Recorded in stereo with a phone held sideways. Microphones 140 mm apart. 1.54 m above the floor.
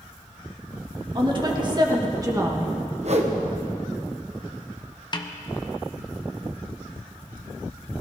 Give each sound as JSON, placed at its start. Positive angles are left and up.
{"t": 1.1, "sound": "a woman speaking", "side_deg": -35, "distance_m": 2.5}
{"t": 3.0, "sound": "a whoosh", "side_deg": -50, "distance_m": 1.3}
{"t": 5.1, "sound": "a snare drum", "side_deg": 30, "distance_m": 1.0}